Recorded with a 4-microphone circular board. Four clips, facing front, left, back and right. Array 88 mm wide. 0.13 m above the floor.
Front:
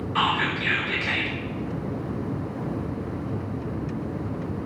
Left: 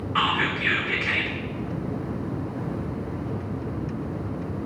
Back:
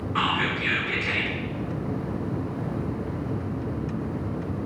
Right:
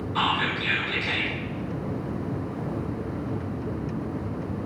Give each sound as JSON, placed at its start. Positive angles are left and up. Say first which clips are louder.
{"t": 0.1, "sound": "whispering", "louder": "left 1 dB, front 2 dB", "azimuth_deg": 100, "distance_m": 2.0}